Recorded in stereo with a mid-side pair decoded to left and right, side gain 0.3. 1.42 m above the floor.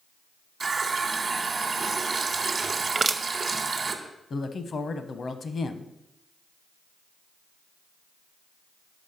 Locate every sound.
0.6 s a running tap: 55° right, 1.2 m
3.0 s crushing: 40° right, 0.8 m
4.3 s a woman speaking: 60° left, 0.9 m